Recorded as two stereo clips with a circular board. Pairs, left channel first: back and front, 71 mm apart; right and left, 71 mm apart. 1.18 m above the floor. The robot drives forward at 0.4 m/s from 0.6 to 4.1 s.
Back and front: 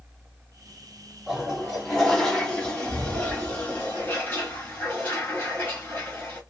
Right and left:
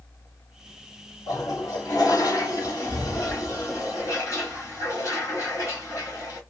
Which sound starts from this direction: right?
A toilet flushing, at 1.3 s.